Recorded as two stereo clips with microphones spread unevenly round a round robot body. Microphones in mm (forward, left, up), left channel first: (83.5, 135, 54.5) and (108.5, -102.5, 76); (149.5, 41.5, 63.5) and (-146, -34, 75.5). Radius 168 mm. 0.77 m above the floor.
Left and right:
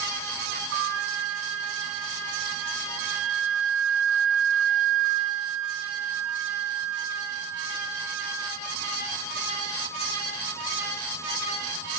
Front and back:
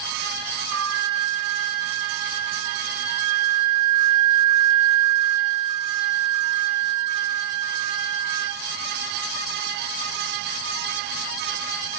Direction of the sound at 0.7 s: 125° right.